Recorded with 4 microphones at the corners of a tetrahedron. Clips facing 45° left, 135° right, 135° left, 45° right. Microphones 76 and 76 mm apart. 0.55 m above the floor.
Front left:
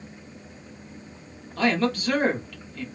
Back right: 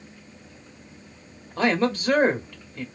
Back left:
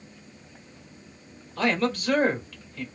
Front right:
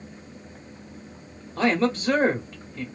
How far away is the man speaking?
About 1.2 m.